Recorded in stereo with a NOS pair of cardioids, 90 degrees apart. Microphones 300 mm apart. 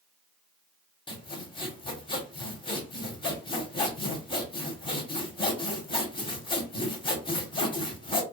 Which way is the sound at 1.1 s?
15° left.